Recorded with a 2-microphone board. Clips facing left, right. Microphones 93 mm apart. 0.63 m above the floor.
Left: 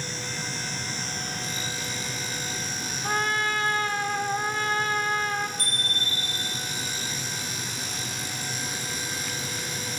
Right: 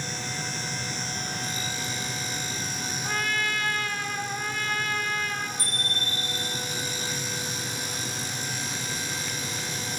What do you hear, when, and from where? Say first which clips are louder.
3.0 s a trumpet: left 4 dB; 30° left (ahead or behind), 1.3 m
5.6 s a bicycle bell: even; 65° left (ahead or behind), 6 m